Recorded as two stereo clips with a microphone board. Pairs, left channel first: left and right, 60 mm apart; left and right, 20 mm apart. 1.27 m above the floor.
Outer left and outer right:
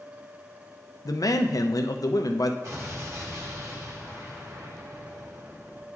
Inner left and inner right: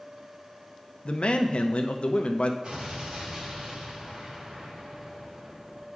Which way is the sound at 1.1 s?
70° left (ahead or behind).